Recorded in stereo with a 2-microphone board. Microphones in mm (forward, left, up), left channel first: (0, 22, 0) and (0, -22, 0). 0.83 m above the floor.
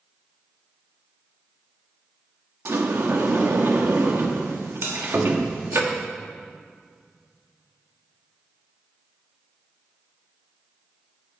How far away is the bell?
About 2.5 m.